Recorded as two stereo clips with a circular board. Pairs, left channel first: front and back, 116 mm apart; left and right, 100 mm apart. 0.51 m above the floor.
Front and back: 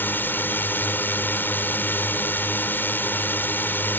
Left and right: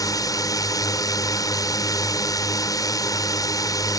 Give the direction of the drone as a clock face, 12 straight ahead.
10 o'clock.